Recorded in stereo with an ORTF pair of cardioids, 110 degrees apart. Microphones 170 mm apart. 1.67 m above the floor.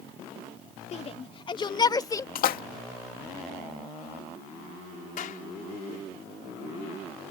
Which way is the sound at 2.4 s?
60° left.